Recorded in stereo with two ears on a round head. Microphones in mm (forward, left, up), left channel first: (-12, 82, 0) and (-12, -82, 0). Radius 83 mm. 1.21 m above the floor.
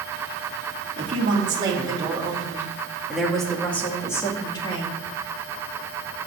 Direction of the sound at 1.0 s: 30° right (ahead or behind).